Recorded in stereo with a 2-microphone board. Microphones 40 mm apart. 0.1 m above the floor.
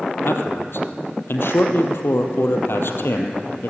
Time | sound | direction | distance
0.2 | a man speaking | 65° left (ahead or behind) | 2.5 m